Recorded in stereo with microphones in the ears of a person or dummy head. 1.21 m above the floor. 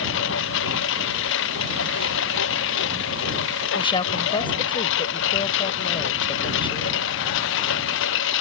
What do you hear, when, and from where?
0.0 s a lawn mower: 75° left (ahead or behind)
3.8 s a woman speaking: 30° left (ahead or behind)